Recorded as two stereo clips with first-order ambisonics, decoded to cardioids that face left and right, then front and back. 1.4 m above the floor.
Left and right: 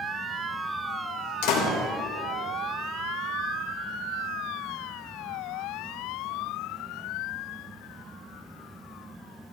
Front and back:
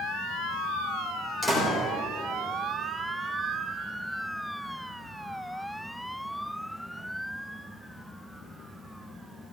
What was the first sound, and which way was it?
A door slam, 80° left.